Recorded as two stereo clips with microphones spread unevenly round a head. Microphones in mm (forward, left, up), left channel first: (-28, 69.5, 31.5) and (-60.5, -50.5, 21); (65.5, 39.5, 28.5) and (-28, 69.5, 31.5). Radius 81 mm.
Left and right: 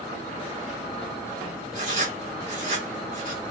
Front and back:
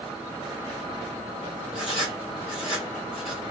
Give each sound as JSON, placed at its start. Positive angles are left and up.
{"t": 1.7, "sound": "writing", "azimuth_deg": -70, "distance_m": 1.6}